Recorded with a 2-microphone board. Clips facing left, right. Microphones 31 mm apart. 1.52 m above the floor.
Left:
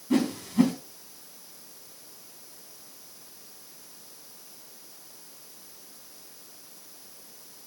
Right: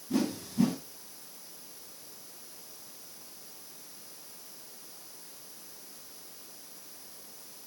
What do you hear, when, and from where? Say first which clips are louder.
0.1 s a whoosh: left 6 dB; 75° left (ahead or behind), 3.5 m